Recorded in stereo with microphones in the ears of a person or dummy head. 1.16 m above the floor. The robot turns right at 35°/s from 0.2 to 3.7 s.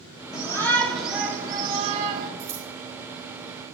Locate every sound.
0.3 s a shout: 155° left, 0.9 m; by 2.3 s 135° right, 0.9 m
2.4 s scissors: 10° right (ahead or behind), 2 m; by 2.7 s 20° right (ahead or behind), 2 m